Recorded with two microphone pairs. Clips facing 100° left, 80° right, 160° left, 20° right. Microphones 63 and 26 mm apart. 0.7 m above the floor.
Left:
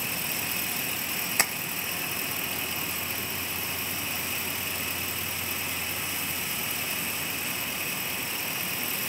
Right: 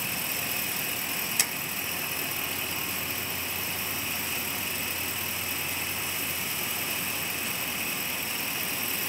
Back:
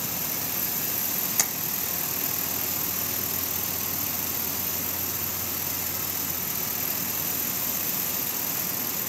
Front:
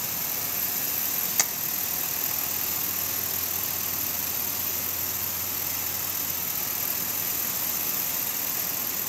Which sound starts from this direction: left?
Tapping, at 1.4 s.